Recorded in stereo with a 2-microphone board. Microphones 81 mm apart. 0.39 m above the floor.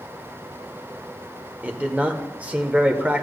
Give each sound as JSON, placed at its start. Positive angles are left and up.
{"t": 1.6, "sound": "a man speaking", "side_deg": -15, "distance_m": 1.1}